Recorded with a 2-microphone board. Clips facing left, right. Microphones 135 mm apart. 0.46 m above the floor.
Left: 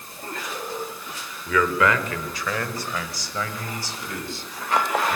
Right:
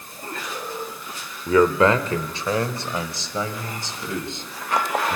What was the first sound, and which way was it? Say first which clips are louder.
A man speaking: right 5 dB; 35° right (ahead or behind).